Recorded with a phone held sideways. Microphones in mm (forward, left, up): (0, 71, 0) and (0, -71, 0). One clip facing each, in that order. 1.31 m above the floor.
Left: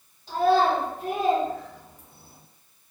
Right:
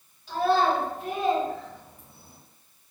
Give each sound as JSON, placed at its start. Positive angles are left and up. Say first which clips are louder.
{"t": 0.3, "sound": "a child speaking", "louder": "left 2 dB", "side_deg": 35, "distance_m": 1.4}